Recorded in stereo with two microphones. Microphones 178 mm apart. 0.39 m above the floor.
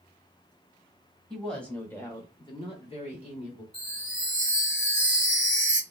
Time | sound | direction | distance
1.3 | a woman speaking | centre (ahead or behind) | 1.3 m
3.7 | a chime | 40° left (ahead or behind) | 1.8 m